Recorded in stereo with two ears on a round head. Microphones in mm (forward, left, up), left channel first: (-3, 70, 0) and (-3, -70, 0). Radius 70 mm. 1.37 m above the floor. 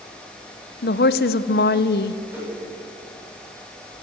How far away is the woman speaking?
About 1.0 m.